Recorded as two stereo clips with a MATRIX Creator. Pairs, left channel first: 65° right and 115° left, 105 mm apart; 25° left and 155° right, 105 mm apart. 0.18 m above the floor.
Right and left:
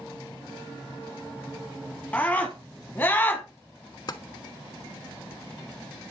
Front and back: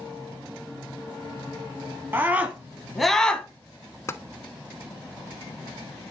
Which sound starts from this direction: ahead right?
Tapping, at 4.1 s.